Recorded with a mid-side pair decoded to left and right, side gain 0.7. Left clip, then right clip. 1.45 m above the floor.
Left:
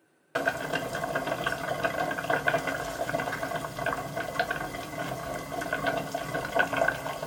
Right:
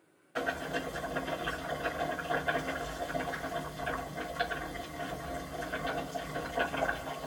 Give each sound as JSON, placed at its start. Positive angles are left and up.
{"t": 0.3, "sound": "boiling", "azimuth_deg": 65, "distance_m": 1.1}